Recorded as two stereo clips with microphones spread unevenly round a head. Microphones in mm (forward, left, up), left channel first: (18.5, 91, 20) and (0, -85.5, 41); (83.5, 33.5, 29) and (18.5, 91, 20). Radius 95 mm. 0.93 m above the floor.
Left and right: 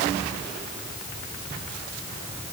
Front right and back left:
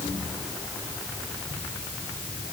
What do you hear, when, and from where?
Only background noise.